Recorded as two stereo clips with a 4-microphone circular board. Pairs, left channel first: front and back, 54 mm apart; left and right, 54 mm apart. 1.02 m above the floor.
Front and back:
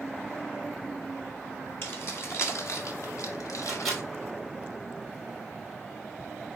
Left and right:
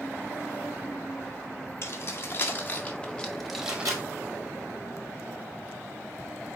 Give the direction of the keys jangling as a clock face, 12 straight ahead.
10 o'clock.